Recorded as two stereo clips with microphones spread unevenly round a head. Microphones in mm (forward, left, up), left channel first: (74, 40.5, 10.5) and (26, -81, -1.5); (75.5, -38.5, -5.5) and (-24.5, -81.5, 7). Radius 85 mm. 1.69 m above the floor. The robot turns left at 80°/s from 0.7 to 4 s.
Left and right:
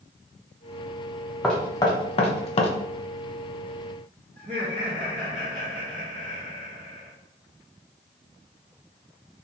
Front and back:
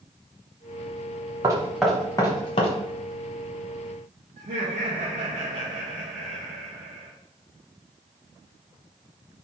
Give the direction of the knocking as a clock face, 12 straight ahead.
7 o'clock.